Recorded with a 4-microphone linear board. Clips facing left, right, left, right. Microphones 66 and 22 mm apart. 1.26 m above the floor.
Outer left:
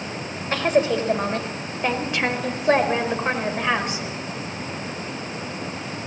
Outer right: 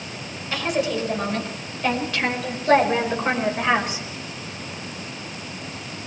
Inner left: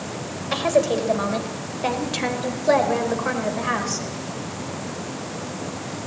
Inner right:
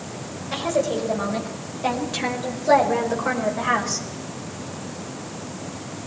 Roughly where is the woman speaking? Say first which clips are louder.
Outer left 4 dB, inner left 3 dB; left.